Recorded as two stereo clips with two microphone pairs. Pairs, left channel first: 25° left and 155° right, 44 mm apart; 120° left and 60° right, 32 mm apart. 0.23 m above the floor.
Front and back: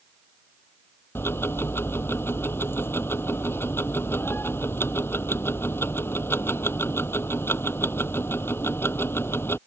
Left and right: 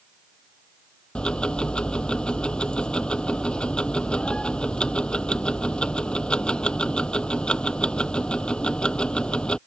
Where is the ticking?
55° left.